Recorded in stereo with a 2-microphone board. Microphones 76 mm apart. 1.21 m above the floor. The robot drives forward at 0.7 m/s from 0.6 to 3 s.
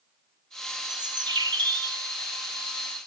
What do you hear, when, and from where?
0.9 s a bird: 60° right (ahead or behind), 0.9 m; by 2.0 s 65° right (ahead or behind), 0.8 m